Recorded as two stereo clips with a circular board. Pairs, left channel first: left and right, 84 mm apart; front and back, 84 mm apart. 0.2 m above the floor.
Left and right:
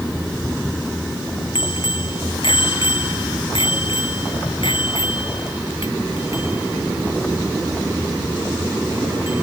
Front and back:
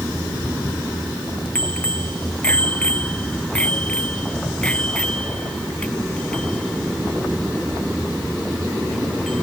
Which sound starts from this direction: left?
A bicycle bell, at 1.6 s.